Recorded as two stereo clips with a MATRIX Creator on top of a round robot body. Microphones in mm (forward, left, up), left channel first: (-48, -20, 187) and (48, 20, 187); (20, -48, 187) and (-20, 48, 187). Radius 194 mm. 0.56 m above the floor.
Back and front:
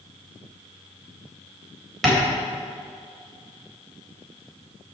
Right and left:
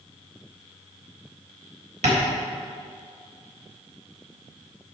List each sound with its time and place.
2.0 s tapping: 115° left, 3.5 m